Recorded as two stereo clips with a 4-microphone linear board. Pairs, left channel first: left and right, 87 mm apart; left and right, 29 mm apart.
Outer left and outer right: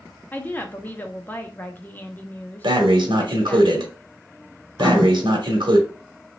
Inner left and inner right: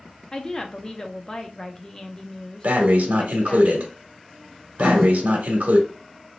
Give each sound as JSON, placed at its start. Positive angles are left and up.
{"t": 0.3, "sound": "a woman speaking", "side_deg": 20, "distance_m": 0.6}
{"t": 2.6, "sound": "breathing", "side_deg": -65, "distance_m": 0.9}
{"t": 4.8, "sound": "writing", "side_deg": 20, "distance_m": 1.9}